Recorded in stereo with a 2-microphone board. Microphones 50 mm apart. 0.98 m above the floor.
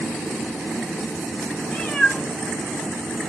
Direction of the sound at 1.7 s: 10° left (ahead or behind).